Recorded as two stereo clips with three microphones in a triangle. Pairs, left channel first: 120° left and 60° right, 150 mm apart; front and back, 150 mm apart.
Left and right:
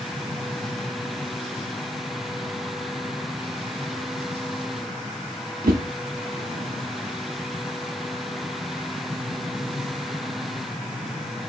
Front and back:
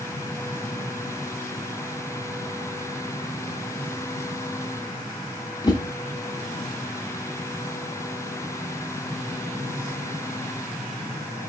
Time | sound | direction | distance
5.6 | a whoosh | 65° right | 0.6 m